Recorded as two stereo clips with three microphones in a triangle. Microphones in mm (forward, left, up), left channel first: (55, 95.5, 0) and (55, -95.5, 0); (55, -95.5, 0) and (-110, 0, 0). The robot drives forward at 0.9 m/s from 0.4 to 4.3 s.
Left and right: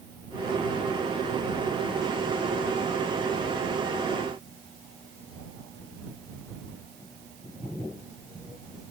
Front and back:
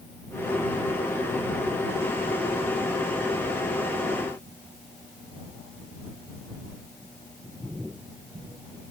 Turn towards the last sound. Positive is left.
No sound to turn to.